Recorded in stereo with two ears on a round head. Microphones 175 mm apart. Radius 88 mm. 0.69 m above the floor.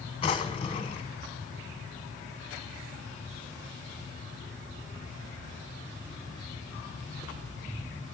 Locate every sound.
0.2 s a drawer: 25° left (ahead or behind), 1.3 m